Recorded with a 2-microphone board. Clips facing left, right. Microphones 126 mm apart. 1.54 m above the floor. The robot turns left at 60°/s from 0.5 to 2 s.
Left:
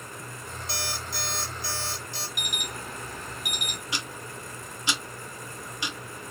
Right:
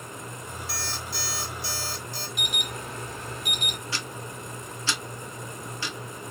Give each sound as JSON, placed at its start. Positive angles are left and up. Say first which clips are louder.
{"t": 0.7, "sound": "an alarm clock", "louder": "left 3 dB", "azimuth_deg": 25, "distance_m": 2.5}
{"t": 2.4, "sound": "an alarm", "louder": "right 2 dB", "side_deg": -25, "distance_m": 2.5}
{"t": 3.9, "sound": "ticking", "louder": "right 1 dB", "side_deg": 15, "distance_m": 0.8}